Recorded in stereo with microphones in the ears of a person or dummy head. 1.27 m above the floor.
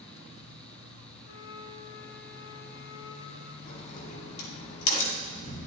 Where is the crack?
40° left (ahead or behind), 8 m.